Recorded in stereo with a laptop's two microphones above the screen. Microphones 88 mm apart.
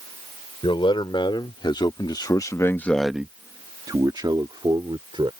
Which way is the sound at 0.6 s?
70° left (ahead or behind).